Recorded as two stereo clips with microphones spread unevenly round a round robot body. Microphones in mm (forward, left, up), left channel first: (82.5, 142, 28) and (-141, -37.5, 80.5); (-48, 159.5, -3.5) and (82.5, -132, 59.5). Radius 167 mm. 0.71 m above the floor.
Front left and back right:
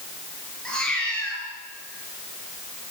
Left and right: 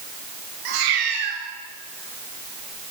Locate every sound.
0.7 s a cat meowing: 50° right, 4.5 m